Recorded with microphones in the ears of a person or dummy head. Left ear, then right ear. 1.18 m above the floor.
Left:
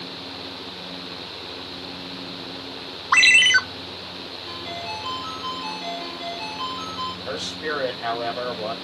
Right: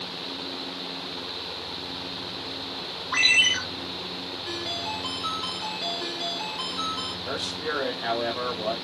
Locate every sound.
3.1 s a ringtone: 40° left (ahead or behind), 1.1 m
4.5 s a ringtone: 25° right (ahead or behind), 3.5 m
7.3 s a man speaking: 10° left (ahead or behind), 5 m